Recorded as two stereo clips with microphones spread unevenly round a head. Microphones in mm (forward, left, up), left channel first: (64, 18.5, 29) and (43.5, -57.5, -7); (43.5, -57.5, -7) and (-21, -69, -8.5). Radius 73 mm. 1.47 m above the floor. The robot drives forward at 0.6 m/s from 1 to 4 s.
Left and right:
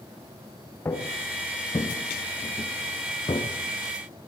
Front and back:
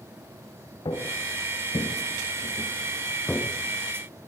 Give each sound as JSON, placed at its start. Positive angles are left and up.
{"t": 0.8, "sound": "footsteps", "azimuth_deg": 25, "distance_m": 5.5}